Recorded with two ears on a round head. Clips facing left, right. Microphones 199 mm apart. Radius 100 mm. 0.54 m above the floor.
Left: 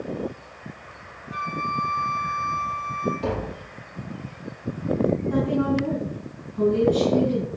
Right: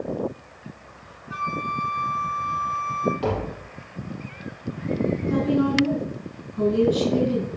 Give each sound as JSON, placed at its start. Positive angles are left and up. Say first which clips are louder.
{"t": 1.3, "sound": "a flute", "louder": "even", "side_deg": -75, "distance_m": 5.0}
{"t": 3.2, "sound": "tapping", "louder": "right 2 dB", "side_deg": -70, "distance_m": 5.0}
{"t": 5.3, "sound": "a woman speaking", "louder": "right 1 dB", "side_deg": -40, "distance_m": 5.5}